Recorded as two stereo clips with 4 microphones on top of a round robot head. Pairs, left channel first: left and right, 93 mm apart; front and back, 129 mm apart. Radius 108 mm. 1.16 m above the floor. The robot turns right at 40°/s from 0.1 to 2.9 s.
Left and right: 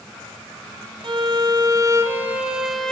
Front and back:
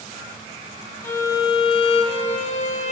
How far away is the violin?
About 0.6 m.